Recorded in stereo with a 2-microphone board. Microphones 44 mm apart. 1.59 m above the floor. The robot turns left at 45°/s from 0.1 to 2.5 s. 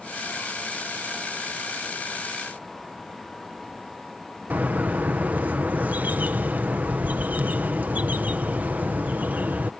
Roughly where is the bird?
Right.